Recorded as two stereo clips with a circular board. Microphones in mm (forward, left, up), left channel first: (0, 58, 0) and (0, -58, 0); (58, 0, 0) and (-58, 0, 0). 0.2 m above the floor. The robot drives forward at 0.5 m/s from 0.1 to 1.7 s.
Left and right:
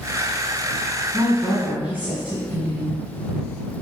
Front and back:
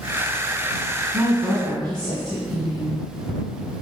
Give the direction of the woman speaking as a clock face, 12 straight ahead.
5 o'clock.